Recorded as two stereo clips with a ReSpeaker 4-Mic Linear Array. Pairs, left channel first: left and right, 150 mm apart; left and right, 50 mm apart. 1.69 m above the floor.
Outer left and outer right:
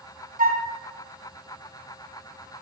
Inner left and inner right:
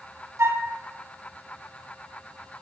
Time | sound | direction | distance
0.4 | a flute | 70° right (ahead or behind) | 0.6 m